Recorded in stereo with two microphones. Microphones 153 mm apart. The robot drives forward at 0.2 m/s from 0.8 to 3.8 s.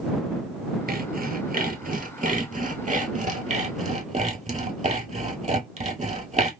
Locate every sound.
0.9 s sawing: 70° right (ahead or behind), 0.9 m; by 6.5 s 50° right (ahead or behind), 1.1 m